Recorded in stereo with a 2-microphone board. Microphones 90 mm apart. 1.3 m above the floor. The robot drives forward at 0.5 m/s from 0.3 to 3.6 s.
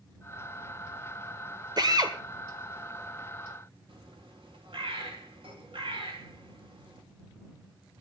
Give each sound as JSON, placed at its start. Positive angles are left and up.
{"t": 1.8, "sound": "a drill", "side_deg": -50, "distance_m": 1.7}
{"t": 3.9, "sound": "a bird", "side_deg": -70, "distance_m": 3.0}